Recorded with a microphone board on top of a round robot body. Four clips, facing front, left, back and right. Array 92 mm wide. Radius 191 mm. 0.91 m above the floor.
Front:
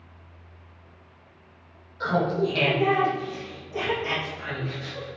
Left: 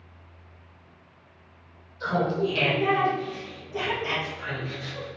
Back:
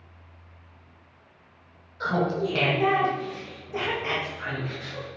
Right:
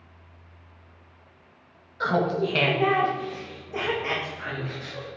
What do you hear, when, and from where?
2.0 s laughter: 95° right, 1.7 m; by 5.1 s 145° right, 3 m